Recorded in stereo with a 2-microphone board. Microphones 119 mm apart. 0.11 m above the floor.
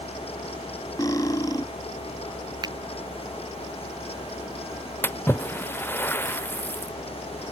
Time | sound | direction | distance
1.0 | cutlery clinking | 30° left (ahead or behind) | ?
2.6 | a finger snap | 35° right (ahead or behind) | ?
5.0 | a splash | 15° left (ahead or behind) | ?